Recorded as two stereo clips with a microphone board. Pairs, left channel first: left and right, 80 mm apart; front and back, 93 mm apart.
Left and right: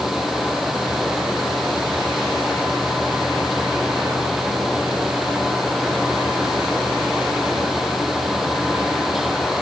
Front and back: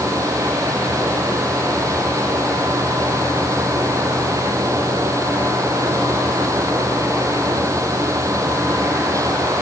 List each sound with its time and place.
Only background noise.